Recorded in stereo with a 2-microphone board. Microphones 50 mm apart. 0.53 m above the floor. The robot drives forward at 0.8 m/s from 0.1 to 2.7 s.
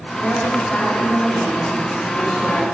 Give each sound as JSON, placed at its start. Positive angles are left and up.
{"t": 0.2, "sound": "a woman speaking", "side_deg": 25, "distance_m": 1.1}